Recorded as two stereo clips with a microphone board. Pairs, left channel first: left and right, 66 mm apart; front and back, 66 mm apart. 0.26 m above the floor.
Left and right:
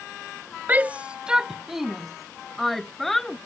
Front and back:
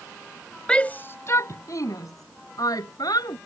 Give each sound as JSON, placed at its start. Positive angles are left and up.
{"t": 0.7, "sound": "a shout", "azimuth_deg": -60}